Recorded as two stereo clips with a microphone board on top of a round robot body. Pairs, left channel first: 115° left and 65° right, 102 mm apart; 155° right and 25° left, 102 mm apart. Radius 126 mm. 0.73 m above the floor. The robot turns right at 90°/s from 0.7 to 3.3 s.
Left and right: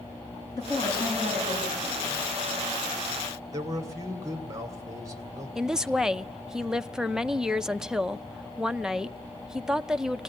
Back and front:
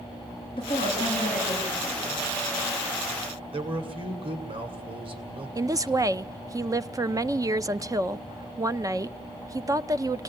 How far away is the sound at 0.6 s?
About 7 m.